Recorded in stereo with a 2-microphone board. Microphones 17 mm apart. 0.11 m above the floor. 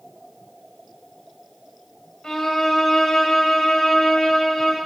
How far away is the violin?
About 1.6 m.